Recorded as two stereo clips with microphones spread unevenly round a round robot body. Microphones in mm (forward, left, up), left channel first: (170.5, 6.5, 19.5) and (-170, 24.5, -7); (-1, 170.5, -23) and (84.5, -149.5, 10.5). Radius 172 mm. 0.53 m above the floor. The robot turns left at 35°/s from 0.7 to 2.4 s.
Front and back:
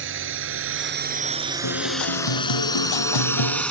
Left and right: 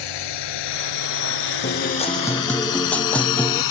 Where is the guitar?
45° left; by 3.6 s 20° left.